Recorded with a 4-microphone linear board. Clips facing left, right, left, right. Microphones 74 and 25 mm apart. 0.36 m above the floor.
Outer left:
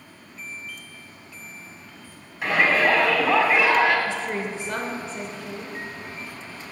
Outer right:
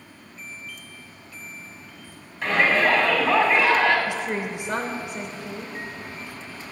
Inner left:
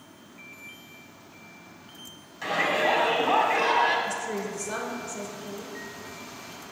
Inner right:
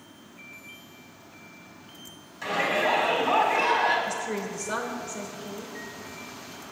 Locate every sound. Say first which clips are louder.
2.4 s a shout: even, inner left 1 dB; 5° left (ahead or behind), 2.5 m
4.1 s a woman speaking: even, even; 20° right (ahead or behind), 0.8 m